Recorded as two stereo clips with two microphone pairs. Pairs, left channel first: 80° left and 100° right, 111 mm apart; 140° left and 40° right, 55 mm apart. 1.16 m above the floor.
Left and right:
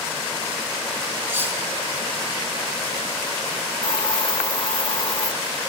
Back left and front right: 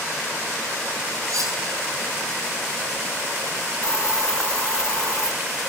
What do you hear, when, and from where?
1.3 s cutlery clinking: 30° right, 8 m
3.8 s a hiss: 40° left, 0.7 m